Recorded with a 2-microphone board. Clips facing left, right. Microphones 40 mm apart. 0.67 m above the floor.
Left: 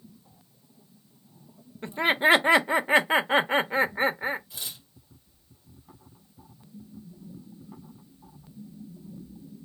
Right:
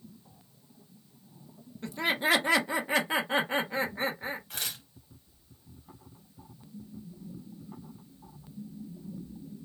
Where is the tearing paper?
60° right (ahead or behind), 1.3 m.